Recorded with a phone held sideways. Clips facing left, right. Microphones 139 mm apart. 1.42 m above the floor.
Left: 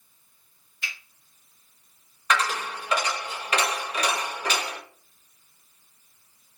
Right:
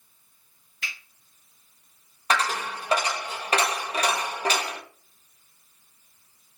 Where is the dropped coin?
35° right (ahead or behind), 0.8 m.